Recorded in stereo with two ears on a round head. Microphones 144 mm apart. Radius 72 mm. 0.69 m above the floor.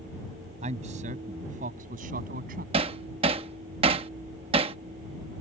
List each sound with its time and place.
0.6 s a man speaking: 45° right (ahead or behind); by 2.6 s 60° right (ahead or behind)
2.7 s hammering: 35° right (ahead or behind)